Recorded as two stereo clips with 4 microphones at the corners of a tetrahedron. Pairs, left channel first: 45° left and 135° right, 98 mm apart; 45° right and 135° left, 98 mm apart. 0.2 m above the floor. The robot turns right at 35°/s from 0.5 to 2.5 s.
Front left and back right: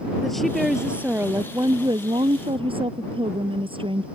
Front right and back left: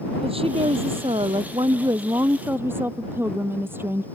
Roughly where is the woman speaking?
Behind left.